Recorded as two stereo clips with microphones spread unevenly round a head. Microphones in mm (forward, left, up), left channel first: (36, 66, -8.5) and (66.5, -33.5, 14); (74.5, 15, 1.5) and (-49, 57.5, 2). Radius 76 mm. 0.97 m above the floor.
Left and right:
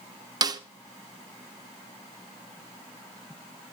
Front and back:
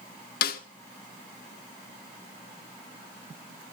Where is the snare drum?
20° right, 1.1 m.